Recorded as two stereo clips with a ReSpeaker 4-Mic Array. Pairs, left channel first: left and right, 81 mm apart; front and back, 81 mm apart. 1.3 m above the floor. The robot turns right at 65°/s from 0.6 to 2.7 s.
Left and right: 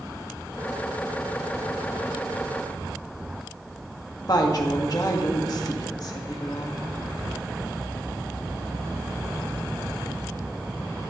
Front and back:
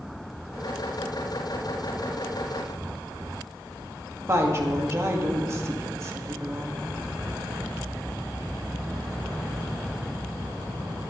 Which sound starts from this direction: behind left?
A woman speaking, at 4.3 s.